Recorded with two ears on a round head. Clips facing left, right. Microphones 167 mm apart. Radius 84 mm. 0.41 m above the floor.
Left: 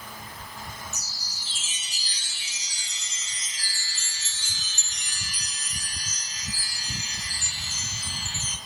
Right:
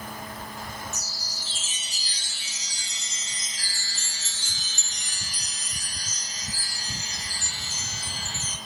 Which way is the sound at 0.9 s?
35° right (ahead or behind).